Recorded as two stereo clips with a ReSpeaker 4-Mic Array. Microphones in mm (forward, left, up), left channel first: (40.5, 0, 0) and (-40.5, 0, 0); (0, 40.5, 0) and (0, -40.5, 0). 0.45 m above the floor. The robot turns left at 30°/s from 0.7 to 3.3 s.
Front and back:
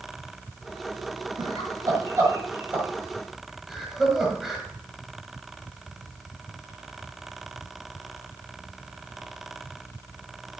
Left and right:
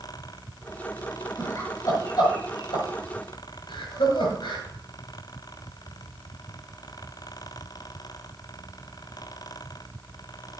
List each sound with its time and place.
1.4 s laughter: 155° left, 6.5 m; by 4.6 s 95° left, 6.5 m